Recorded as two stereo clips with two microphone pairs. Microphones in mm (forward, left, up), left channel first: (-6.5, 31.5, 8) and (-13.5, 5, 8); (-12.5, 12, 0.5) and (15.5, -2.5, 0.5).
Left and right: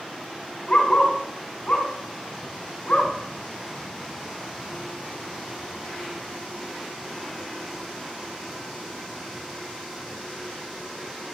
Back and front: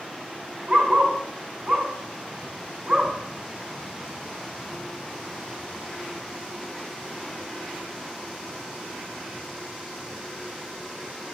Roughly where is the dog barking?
Ahead left.